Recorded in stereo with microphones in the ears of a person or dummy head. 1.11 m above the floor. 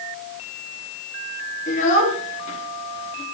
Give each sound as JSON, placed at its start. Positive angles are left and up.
{"t": 1.7, "sound": "a child speaking", "side_deg": 40, "distance_m": 9.5}